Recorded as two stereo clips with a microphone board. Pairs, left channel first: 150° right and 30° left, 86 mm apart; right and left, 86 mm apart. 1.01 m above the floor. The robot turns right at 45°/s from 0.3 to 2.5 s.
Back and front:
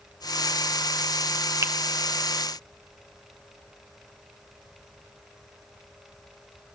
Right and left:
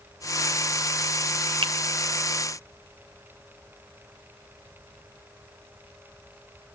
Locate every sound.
1.6 s a finger snap: 85° left, 0.8 m; by 1.7 s 90° left, 0.8 m